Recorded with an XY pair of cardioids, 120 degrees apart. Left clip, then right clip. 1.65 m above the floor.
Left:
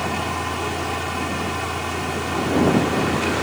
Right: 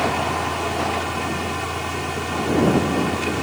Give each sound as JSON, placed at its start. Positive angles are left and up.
{"t": 0.0, "sound": "a fan", "azimuth_deg": 0}